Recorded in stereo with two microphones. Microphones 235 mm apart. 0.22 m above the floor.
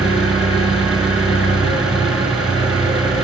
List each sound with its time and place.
0.0 s an engine running: 5° right (ahead or behind), 1.1 m